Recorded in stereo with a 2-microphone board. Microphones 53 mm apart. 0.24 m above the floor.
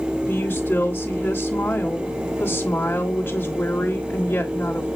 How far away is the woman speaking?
About 1.5 m.